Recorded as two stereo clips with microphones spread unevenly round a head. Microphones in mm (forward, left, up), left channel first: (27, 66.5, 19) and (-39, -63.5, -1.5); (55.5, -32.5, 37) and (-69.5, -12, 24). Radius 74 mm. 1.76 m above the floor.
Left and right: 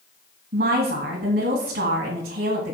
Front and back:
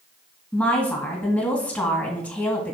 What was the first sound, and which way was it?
A woman speaking, 80° right.